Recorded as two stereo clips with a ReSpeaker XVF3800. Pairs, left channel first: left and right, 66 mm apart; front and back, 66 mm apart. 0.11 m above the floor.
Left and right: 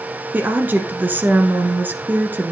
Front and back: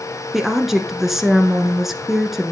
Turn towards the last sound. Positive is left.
turn(degrees=-100)